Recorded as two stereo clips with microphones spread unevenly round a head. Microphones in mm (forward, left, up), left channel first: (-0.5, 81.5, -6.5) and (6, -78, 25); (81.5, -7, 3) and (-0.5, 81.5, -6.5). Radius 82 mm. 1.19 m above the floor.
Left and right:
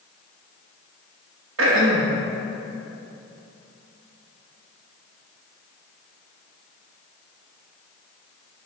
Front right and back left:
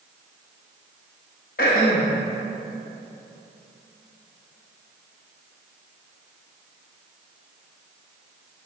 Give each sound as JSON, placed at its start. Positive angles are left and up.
{"t": 1.6, "sound": "throat clearing", "azimuth_deg": -80, "distance_m": 1.2}